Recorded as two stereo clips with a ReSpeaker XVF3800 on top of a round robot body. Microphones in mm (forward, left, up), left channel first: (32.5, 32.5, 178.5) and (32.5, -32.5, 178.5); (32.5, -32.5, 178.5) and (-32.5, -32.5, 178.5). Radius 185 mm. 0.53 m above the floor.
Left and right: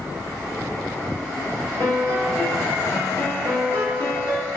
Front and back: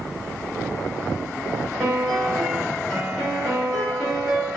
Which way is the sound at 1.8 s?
85° left.